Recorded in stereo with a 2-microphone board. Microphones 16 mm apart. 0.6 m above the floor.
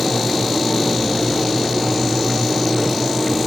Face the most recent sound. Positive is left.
No sound to turn to.